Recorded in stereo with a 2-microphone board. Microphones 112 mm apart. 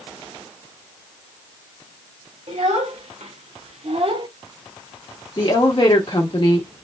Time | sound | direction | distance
2.5 | a child speaking | 70° right (ahead or behind) | 1.5 m
5.4 | a woman speaking | 45° left (ahead or behind) | 1.3 m